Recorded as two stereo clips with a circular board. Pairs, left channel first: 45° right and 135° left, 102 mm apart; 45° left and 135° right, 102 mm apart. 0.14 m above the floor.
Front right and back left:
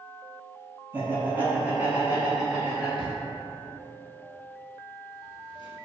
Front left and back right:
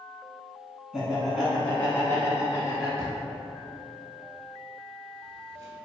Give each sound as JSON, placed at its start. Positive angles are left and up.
{"t": 0.9, "sound": "laughter", "azimuth_deg": 155, "distance_m": 1.2}
{"t": 3.0, "sound": "a drawer", "azimuth_deg": -75, "distance_m": 0.9}